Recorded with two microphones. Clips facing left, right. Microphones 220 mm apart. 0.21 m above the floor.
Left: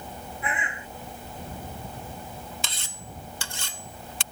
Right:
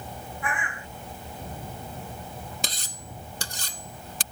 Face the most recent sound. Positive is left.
turn(degrees=-40)  # may be behind; listen again after turning